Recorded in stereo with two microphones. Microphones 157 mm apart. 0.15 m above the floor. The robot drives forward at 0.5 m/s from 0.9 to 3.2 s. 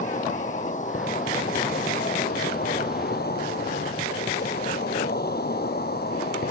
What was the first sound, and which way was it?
An insect, 50° left (ahead or behind).